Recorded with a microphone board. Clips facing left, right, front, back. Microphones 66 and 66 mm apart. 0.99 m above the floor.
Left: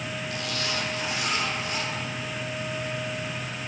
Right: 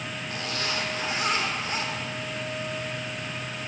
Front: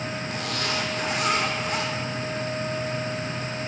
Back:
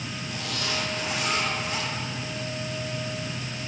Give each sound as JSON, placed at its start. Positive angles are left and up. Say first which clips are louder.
{"t": 0.3, "sound": "a zipper", "louder": "right 1 dB, front 1 dB", "azimuth_deg": -35, "distance_m": 2.0}